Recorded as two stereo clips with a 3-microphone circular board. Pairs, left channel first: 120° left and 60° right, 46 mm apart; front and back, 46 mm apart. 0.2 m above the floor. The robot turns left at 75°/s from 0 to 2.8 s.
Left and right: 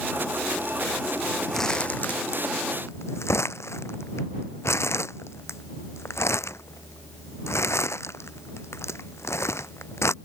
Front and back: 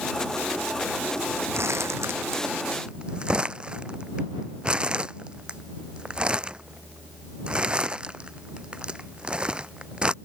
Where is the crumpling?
150° right; by 10.1 s 115° left.